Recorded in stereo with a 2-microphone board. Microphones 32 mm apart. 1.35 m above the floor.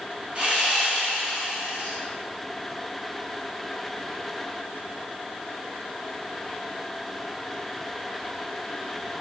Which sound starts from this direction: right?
Sawing, at 0.3 s.